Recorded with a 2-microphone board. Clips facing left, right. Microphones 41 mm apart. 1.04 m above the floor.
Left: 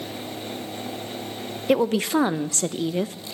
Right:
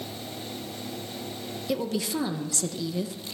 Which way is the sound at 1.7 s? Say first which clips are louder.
Left 9 dB; 50° left (ahead or behind).